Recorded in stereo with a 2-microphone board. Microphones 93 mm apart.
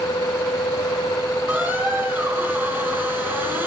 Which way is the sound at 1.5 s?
25° right (ahead or behind).